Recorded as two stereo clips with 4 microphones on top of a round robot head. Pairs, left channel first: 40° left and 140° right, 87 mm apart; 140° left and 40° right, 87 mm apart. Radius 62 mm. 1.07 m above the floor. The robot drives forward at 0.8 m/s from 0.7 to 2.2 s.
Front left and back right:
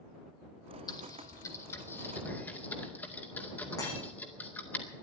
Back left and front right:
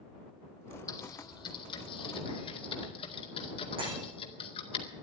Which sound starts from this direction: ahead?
Breaking glass, at 3.8 s.